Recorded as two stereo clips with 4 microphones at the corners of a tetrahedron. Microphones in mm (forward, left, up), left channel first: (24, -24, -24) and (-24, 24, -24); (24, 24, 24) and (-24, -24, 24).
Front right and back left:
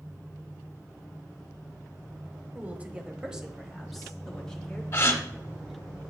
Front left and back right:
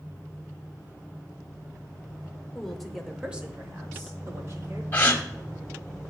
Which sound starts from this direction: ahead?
A gasp, at 4.9 s.